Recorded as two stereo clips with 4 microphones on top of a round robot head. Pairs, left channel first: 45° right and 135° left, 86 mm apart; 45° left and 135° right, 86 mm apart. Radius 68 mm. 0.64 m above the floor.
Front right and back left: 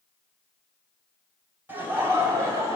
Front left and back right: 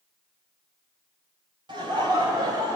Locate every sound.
1.7 s laughter: 160° right, 3 m; by 2.8 s 175° right, 3 m